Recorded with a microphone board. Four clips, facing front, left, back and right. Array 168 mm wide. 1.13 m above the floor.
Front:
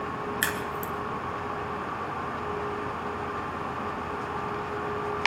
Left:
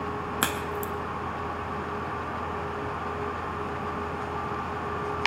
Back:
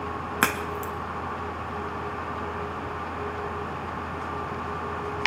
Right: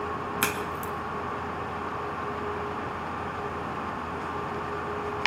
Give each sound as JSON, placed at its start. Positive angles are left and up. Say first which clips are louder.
{"t": 0.4, "sound": "a crack", "louder": "left 1 dB, back 3 dB", "azimuth_deg": 160, "distance_m": 2.5}